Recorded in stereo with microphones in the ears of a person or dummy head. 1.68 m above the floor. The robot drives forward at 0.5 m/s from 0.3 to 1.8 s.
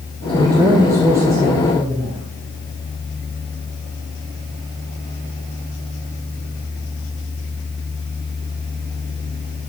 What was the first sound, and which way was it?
A man speaking, 15° right (ahead or behind).